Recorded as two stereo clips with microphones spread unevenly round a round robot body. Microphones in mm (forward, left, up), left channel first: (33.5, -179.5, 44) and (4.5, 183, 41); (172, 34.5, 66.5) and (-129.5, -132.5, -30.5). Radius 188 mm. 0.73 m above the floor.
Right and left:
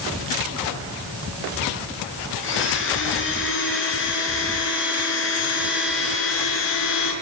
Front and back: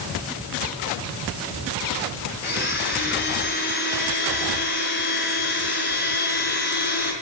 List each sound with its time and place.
2.4 s a blender: 30° right, 4.5 m